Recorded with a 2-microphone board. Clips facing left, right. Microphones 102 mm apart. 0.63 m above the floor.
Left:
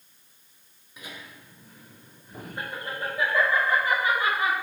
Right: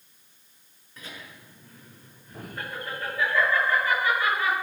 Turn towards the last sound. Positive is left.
turn(degrees=25)  # may be behind; listen again after turning